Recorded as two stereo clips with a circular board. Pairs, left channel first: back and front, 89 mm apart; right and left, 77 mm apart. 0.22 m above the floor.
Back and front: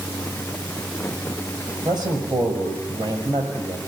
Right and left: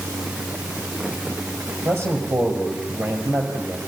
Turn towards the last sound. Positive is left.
turn(degrees=25)